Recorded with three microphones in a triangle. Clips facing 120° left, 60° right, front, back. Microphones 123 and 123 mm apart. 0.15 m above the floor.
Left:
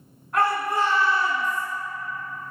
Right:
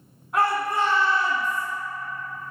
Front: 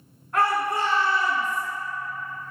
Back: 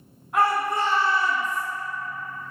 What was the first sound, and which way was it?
A shout, 130° right.